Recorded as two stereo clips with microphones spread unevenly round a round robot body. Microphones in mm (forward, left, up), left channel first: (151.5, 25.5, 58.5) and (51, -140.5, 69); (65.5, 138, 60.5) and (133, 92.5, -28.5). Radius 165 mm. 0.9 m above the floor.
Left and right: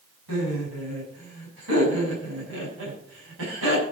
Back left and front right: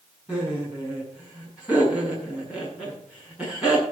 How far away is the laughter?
About 6 m.